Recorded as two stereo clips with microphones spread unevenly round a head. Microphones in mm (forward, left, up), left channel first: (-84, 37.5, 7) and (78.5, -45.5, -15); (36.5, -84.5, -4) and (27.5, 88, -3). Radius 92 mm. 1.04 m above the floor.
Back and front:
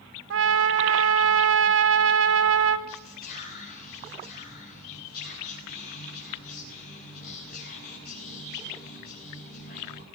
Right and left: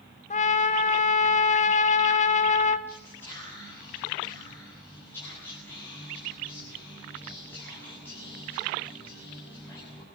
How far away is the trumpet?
About 2 m.